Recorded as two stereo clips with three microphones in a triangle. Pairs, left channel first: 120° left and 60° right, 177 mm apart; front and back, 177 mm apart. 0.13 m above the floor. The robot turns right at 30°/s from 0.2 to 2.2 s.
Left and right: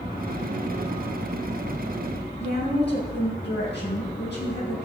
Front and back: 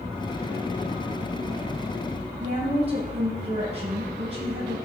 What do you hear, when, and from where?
2.4 s a woman speaking: 125° left, 5 m